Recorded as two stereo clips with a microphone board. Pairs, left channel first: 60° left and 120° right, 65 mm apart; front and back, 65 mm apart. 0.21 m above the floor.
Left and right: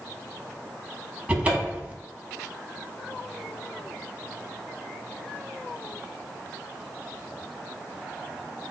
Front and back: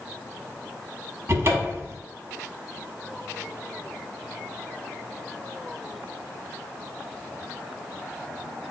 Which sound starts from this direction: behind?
A cupboard door, at 1.3 s.